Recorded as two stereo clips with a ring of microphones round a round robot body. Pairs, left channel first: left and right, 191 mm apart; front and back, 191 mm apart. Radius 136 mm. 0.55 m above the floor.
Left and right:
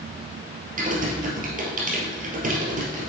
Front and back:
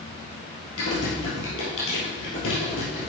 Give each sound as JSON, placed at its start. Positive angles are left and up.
{"t": 0.8, "sound": "typing on a keyboard", "azimuth_deg": -45, "distance_m": 2.0}